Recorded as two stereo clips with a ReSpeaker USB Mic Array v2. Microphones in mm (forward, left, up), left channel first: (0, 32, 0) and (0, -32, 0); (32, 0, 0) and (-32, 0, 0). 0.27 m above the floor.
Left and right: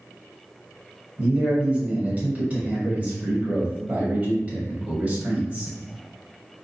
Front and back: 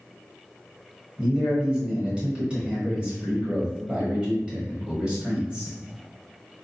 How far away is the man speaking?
About 1.1 m.